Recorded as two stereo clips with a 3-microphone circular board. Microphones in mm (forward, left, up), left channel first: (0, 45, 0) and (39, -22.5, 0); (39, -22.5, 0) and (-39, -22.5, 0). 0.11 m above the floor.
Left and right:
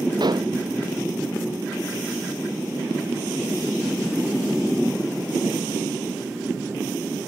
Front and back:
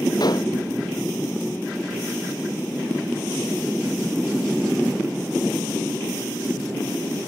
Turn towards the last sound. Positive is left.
turn(degrees=-35)